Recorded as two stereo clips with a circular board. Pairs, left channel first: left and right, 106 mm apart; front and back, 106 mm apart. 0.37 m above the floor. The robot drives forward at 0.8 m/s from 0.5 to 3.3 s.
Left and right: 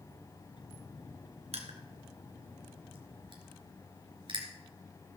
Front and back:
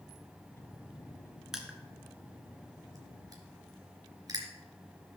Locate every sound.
1.5 s crushing: 95° right, 2.0 m; by 4.5 s 130° right, 2.5 m